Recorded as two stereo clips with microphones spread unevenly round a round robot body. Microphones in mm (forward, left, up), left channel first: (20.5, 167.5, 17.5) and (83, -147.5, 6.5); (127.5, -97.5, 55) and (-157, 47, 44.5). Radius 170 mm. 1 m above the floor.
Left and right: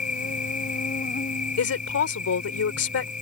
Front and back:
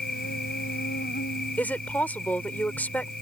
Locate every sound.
0.0 s an insect: 35° left
1.6 s a woman speaking: 60° left